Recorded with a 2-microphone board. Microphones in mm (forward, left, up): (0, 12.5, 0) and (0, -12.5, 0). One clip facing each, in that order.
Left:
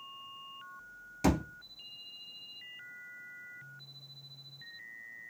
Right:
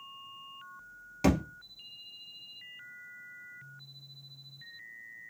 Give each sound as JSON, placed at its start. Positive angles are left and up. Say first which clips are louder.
{"t": 1.2, "sound": "a thud", "louder": "right 2 dB", "side_deg": -15, "distance_m": 1.3}